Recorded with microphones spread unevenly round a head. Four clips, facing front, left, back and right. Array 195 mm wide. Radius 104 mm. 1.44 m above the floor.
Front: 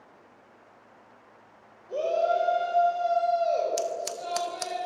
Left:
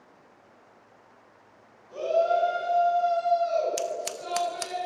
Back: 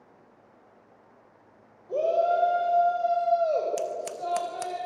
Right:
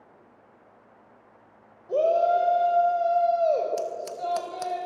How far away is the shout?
About 6.5 m.